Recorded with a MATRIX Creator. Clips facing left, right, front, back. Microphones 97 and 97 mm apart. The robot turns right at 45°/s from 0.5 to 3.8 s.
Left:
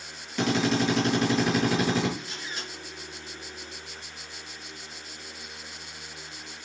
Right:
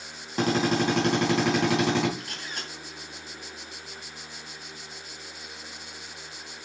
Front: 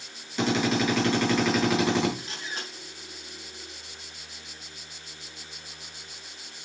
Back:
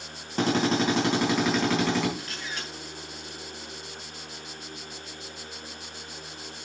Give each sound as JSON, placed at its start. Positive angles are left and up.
{"t": 0.4, "sound": "a drill", "azimuth_deg": -140, "distance_m": 4.0}
{"t": 2.2, "sound": "a camera shutter", "azimuth_deg": -70, "distance_m": 3.5}